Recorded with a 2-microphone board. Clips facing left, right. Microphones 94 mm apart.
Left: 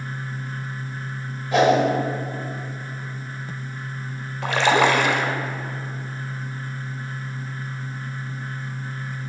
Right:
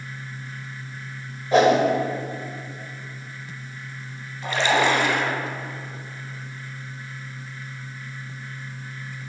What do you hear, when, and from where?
1.5 s a whoosh: 35° right (ahead or behind), 1.4 m
4.4 s a splash: 70° left (ahead or behind), 0.8 m